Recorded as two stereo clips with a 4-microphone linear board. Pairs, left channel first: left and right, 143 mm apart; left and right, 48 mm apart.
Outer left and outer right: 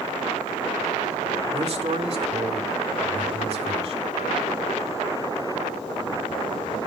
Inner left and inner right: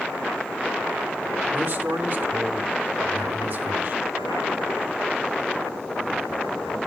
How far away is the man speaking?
About 1.9 m.